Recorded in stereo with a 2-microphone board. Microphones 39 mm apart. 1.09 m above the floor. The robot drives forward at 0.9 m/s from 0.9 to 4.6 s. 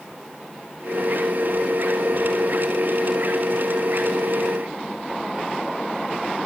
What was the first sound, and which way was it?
Only background noise.